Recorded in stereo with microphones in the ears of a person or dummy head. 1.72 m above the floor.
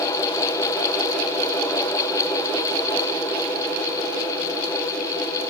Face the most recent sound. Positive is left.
No sound to turn to.